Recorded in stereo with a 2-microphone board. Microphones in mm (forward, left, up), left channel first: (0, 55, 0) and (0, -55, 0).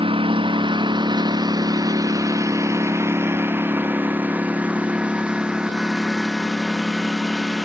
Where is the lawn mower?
55° right (ahead or behind); by 7.7 s centre (ahead or behind).